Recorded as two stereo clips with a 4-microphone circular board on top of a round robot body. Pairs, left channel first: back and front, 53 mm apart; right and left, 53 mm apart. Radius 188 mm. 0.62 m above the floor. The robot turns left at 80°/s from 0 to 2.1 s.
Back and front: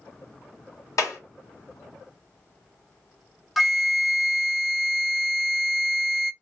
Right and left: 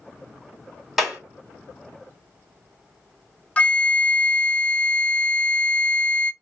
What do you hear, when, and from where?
1.0 s a clap: 175° left, 2.5 m; by 1.2 s 155° left, 2.5 m
3.6 s a flute: 90° right, 0.7 m